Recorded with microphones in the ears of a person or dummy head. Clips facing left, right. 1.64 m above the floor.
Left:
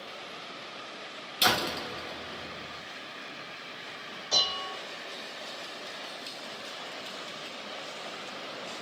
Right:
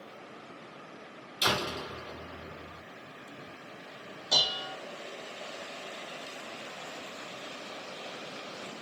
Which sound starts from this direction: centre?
Dishes clattering, at 4.3 s.